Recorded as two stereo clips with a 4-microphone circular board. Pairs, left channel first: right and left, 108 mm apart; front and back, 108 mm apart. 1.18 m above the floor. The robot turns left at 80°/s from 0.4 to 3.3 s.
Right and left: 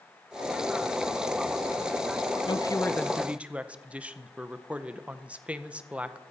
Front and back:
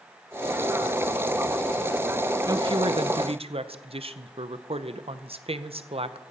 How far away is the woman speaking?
About 0.7 m.